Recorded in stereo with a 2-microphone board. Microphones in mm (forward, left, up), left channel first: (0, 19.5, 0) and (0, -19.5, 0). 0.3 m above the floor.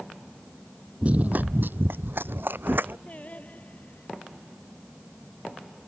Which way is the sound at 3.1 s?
35° left (ahead or behind).